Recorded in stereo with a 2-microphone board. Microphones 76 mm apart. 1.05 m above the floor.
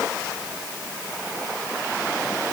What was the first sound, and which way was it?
Only background noise.